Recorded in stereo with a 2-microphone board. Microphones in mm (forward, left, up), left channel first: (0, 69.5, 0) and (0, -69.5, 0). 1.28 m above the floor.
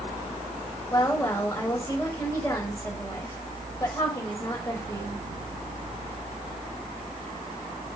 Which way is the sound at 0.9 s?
20° left (ahead or behind).